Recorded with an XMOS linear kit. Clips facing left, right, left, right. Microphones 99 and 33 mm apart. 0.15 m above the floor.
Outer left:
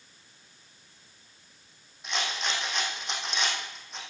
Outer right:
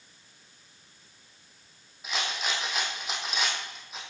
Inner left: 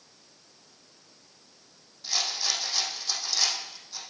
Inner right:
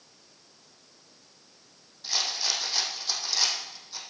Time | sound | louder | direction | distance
2.0 | a rattle | even, even | 5° right (ahead or behind) | 4 m